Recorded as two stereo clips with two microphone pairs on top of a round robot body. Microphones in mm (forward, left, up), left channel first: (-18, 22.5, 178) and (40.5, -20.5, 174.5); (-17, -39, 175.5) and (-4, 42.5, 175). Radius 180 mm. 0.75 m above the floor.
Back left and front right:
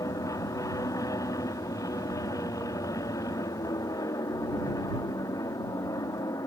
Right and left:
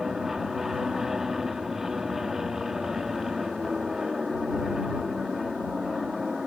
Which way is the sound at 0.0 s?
165° left.